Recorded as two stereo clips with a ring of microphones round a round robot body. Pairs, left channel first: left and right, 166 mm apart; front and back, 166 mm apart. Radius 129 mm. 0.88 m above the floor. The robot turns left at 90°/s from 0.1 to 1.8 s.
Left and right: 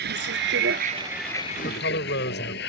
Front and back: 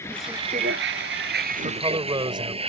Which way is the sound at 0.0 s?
80° right.